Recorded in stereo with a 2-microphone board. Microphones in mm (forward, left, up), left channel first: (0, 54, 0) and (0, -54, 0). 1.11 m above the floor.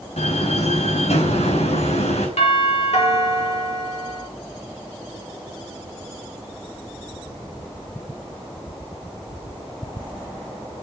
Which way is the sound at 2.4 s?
80° left.